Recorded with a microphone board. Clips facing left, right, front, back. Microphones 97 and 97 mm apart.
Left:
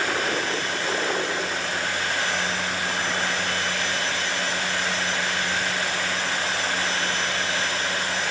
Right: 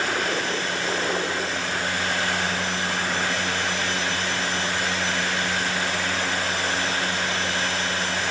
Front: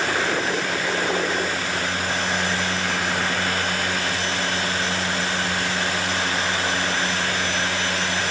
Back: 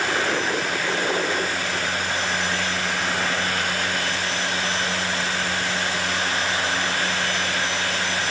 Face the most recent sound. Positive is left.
No sound to turn to.